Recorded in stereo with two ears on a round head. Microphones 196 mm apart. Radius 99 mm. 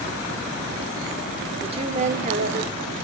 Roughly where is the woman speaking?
Right.